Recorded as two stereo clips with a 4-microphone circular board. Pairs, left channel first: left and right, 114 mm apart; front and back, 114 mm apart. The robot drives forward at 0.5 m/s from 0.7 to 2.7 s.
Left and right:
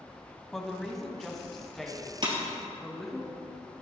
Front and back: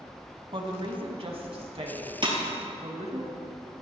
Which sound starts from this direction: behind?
A woman speaking, at 0.5 s.